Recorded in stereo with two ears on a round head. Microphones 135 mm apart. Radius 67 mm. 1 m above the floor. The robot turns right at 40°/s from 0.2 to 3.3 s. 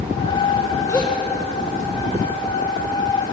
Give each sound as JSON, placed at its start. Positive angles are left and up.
{"t": 0.9, "sound": "a gasp", "side_deg": 20, "distance_m": 5.0}